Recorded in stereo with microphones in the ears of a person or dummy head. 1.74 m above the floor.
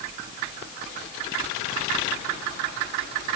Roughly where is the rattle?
I don't hear a rattle.